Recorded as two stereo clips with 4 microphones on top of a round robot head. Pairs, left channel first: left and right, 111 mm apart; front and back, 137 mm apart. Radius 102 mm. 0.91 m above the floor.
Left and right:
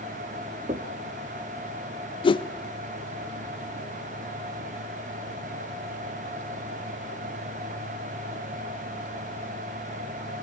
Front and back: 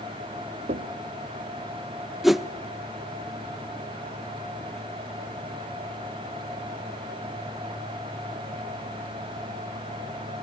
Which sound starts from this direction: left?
A whoosh, at 2.2 s.